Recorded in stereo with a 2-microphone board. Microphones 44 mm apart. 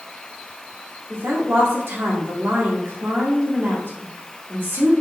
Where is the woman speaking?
60° right (ahead or behind), 1.4 m.